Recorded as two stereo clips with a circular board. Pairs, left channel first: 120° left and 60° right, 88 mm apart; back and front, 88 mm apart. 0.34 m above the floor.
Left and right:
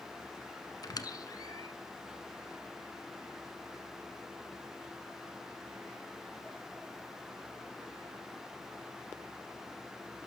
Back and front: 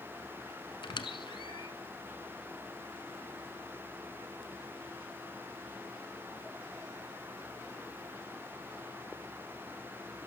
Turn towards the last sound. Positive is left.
turn(degrees=160)